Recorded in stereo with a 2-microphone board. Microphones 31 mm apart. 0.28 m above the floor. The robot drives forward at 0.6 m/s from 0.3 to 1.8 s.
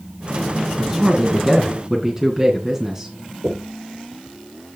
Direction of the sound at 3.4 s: 60° right (ahead or behind).